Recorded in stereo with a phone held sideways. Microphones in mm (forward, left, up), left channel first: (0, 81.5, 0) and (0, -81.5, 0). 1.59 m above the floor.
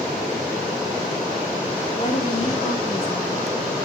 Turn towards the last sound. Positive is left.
turn(degrees=10)  # may be behind; listen again after turning